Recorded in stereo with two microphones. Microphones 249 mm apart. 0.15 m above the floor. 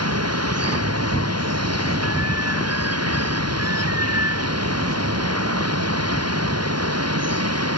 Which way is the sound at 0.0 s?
75° right (ahead or behind).